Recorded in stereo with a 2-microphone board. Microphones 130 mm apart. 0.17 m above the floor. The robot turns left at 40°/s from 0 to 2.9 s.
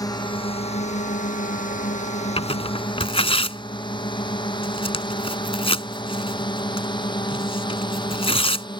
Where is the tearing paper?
45° left (ahead or behind).